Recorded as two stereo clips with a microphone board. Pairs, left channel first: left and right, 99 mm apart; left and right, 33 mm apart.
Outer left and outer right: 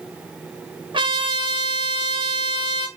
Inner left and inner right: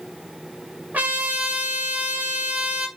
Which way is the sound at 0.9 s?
50° right (ahead or behind).